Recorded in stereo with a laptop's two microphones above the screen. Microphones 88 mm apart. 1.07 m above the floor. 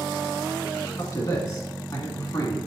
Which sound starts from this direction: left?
A man speaking, at 1.0 s.